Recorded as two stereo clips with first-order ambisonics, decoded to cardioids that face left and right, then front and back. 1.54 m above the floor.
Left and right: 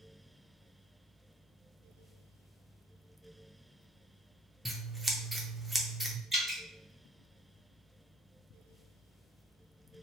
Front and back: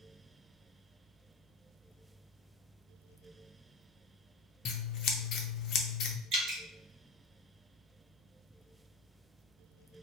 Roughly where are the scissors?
Ahead.